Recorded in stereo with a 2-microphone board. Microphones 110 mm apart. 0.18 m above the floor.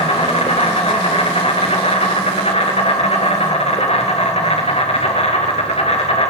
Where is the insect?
65° left (ahead or behind), 3.5 m.